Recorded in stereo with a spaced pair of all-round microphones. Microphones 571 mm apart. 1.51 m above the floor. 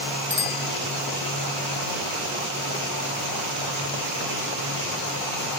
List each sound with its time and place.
0.3 s a bicycle bell: 20° right (ahead or behind)